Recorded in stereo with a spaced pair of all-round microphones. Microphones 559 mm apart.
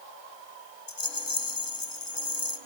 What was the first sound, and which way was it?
A rattle, 35° left (ahead or behind).